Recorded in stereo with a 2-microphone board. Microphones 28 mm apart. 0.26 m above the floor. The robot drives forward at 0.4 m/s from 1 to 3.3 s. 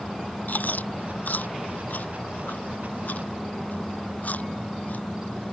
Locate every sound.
0.5 s chewing: 75° left (ahead or behind); by 5.0 s 65° left (ahead or behind)